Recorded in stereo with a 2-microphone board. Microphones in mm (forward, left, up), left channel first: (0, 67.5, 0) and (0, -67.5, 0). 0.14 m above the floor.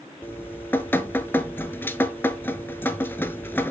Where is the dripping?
15° left (ahead or behind), 0.7 m.